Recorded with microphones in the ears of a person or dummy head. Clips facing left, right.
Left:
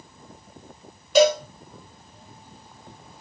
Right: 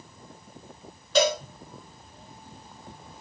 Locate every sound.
1.1 s a cowbell: 10° left (ahead or behind), 1.0 m